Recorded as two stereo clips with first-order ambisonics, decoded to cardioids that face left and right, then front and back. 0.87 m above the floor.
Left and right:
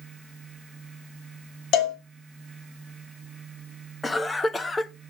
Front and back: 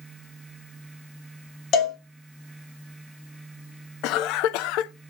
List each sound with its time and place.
1.7 s a cowbell: 50° left, 2 m
4.0 s a cough: 15° left, 0.7 m